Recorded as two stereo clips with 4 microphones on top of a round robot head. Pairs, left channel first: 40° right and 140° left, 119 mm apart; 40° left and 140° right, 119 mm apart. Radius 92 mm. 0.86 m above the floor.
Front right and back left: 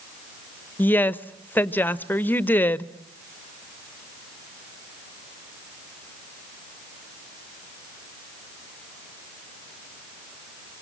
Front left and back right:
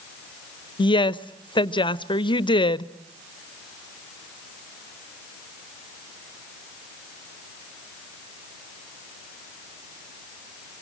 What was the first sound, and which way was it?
A woman speaking, 25° left.